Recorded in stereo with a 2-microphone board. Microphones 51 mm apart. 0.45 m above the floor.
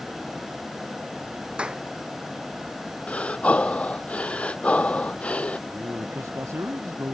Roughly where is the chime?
I don't hear a chime.